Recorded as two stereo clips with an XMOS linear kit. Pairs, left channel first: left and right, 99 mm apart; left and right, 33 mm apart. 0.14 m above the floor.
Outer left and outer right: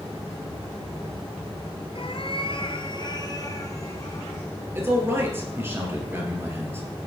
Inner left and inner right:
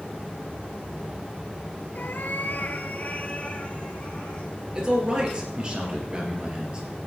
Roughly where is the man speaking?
Right.